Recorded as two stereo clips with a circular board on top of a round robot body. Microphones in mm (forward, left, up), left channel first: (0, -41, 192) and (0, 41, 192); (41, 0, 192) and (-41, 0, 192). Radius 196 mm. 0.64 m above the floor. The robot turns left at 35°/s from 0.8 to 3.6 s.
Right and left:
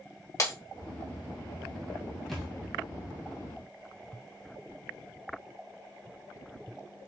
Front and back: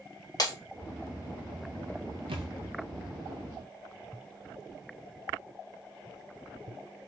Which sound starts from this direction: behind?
A thud, at 2.3 s.